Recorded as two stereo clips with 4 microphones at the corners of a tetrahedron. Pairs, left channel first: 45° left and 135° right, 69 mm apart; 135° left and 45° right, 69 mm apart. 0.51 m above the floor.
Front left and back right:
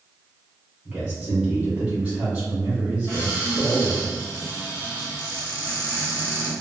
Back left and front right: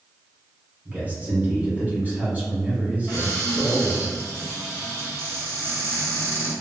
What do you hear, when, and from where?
0.8 s a man speaking: 80° right, 1.4 m
3.1 s a cupboard door: straight ahead, 1.9 m